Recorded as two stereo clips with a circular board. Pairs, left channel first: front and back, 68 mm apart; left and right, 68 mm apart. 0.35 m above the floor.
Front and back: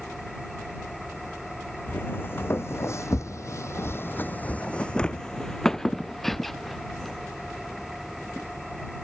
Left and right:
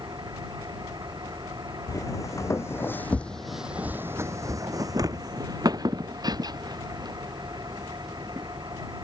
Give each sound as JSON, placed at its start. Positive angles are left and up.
{"t": 0.0, "sound": "an engine running", "azimuth_deg": -90}
{"t": 1.9, "sound": "footsteps", "azimuth_deg": 60}